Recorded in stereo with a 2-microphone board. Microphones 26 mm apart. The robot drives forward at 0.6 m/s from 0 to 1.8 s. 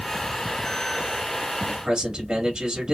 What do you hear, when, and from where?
1.7 s a man speaking: 25° right (ahead or behind), 1.6 m